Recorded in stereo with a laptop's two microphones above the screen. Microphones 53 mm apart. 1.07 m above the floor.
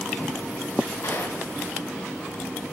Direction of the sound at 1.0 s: 80° left.